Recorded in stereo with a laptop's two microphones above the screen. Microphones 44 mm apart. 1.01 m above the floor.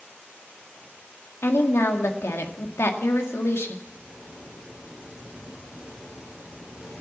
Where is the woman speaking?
75° left (ahead or behind), 1.9 m.